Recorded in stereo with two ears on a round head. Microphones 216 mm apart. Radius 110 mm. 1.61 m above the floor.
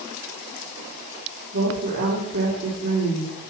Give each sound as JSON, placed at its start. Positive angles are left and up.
{"t": 1.5, "sound": "a woman speaking", "side_deg": -55, "distance_m": 3.0}